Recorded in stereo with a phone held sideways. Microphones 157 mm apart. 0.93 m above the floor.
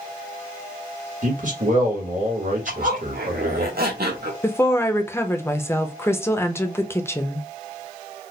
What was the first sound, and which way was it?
A man speaking, 55° right (ahead or behind).